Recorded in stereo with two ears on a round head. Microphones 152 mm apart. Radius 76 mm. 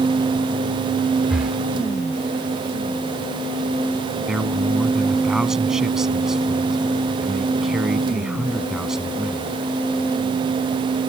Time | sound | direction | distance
1.3 | breathing | 5° right (ahead or behind) | ?
4.3 | a man speaking | 5° right (ahead or behind) | ?